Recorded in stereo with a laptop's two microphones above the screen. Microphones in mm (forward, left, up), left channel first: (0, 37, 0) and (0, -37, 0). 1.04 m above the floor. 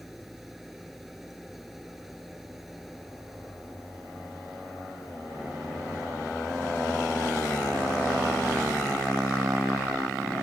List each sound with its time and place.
0.0 s an engine running: centre (ahead or behind)